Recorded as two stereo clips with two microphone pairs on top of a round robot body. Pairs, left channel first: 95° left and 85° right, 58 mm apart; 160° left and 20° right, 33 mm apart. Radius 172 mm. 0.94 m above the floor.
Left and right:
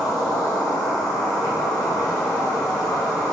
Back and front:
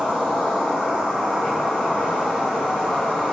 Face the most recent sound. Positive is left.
turn(degrees=90)